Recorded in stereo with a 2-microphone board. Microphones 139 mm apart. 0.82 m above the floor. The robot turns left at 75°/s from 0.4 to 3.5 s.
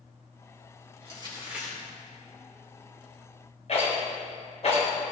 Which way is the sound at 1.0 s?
125° right.